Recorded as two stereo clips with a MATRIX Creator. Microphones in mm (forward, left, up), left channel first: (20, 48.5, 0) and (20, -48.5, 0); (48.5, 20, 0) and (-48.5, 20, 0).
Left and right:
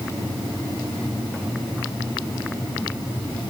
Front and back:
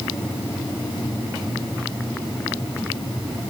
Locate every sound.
Only background noise.